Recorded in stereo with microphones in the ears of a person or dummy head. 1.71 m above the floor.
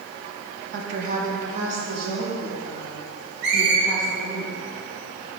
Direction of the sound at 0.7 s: 60° right (ahead or behind).